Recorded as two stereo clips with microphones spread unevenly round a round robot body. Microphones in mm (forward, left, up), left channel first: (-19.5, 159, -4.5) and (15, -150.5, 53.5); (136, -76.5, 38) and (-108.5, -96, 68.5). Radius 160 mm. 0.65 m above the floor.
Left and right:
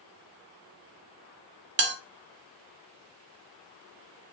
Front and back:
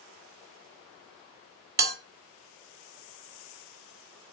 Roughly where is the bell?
Behind right.